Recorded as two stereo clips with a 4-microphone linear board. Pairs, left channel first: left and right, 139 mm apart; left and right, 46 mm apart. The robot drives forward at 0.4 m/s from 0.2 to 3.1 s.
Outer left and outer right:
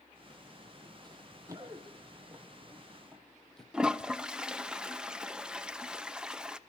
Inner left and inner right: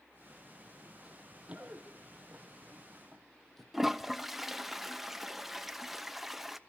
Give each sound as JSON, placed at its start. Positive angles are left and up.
{"t": 1.0, "sound": "running footsteps", "side_deg": -30, "distance_m": 2.5}
{"t": 3.7, "sound": "a toilet flushing", "side_deg": -5, "distance_m": 0.6}